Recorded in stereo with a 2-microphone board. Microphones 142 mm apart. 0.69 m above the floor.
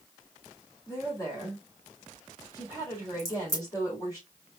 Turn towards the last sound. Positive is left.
turn(degrees=25)  # may be behind; listen again after turning